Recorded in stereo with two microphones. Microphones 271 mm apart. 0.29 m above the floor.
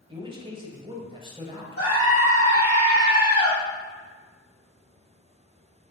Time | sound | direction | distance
0.1 | a man speaking | 20° right (ahead or behind) | 1.3 m
1.8 | a scream | 60° left (ahead or behind) | 3 m